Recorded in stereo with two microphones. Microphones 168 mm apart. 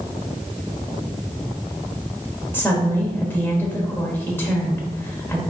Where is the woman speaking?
10° left (ahead or behind), 1.1 m.